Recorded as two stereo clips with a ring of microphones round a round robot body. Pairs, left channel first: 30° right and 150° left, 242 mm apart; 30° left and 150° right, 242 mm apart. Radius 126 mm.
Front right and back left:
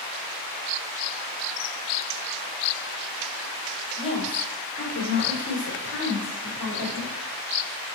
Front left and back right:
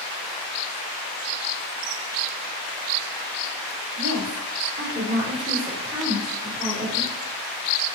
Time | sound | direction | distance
4.0 | a woman speaking | 100° right | 2.5 m